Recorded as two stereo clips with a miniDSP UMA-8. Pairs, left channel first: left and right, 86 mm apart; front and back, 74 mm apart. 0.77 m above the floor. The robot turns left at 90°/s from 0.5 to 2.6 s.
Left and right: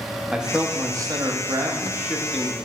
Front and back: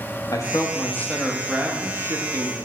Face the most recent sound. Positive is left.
turn(degrees=155)